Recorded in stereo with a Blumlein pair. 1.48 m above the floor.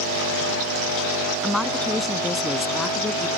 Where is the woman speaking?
5° left.